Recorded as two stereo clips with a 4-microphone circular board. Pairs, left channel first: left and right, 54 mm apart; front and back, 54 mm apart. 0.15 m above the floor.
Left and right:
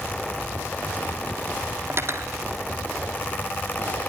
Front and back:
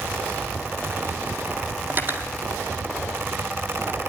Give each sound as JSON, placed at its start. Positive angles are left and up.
{"t": 1.9, "sound": "cutlery clinking", "azimuth_deg": -130, "distance_m": 3.0}